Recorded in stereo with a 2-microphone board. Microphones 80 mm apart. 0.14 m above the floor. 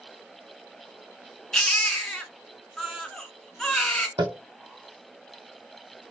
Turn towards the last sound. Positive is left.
turn(degrees=-80)